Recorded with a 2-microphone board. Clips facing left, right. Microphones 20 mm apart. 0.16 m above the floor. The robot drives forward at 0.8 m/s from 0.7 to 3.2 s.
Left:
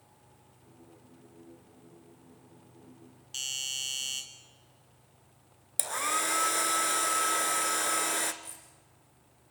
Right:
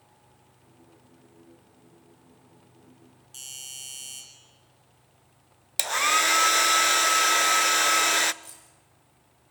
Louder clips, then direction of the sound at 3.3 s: Left 7 dB; 45° left (ahead or behind).